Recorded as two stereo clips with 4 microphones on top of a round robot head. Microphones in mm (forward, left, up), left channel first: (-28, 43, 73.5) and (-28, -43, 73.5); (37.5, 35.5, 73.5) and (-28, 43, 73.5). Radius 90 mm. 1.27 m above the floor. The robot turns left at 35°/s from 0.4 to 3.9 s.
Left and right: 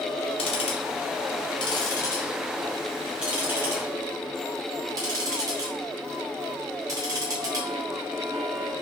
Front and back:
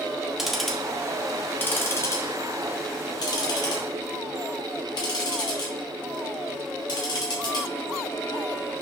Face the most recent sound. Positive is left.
turn(degrees=-35)